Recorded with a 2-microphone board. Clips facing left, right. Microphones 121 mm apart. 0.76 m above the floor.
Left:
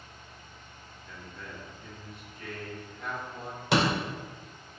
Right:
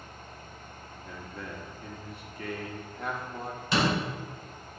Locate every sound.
1.1 s a man speaking: 65° right (ahead or behind), 1.8 m
3.7 s a door slam: 80° left, 2 m